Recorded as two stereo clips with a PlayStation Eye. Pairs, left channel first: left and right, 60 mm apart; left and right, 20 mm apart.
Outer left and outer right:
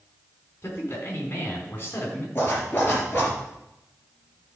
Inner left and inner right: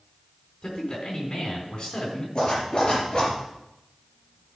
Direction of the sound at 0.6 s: 40° left (ahead or behind).